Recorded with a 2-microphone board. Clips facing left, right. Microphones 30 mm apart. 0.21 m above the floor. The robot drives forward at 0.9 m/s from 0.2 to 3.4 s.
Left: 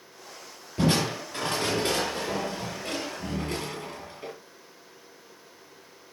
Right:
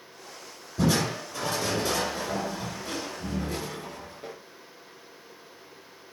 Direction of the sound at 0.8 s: 60° left (ahead or behind).